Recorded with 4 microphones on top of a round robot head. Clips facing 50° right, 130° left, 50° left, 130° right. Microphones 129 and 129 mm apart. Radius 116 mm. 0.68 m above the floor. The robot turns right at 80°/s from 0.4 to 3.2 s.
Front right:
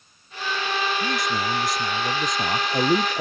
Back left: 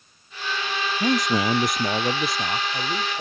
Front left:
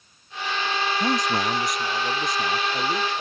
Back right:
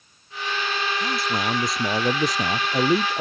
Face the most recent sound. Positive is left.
turn(degrees=-75)